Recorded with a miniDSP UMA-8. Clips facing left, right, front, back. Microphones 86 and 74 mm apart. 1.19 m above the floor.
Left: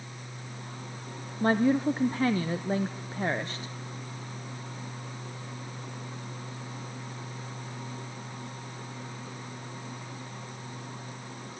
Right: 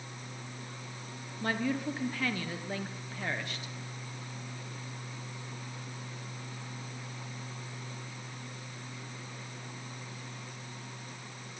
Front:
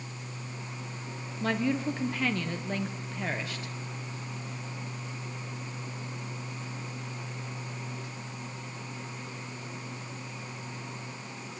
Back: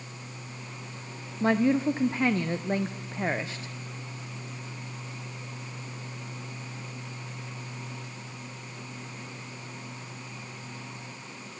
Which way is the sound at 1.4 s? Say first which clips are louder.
Left 8 dB, back 6 dB; 130° left.